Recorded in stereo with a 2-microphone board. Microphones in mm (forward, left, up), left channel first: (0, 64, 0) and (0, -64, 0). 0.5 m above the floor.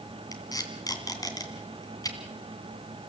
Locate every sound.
0.3 s tape being pulled: 30° left (ahead or behind), 2.5 m